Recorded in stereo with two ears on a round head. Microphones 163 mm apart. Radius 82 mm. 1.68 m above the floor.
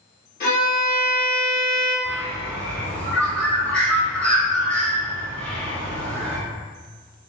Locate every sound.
0.4 s a violin: 50° left (ahead or behind), 1.2 m
2.0 s a bird: 5° left (ahead or behind), 0.7 m